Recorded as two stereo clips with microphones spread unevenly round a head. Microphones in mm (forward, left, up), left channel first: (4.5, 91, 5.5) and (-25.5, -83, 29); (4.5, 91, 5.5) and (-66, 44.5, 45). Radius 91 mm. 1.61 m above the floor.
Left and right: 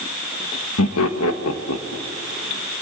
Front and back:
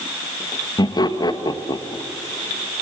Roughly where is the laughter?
Left.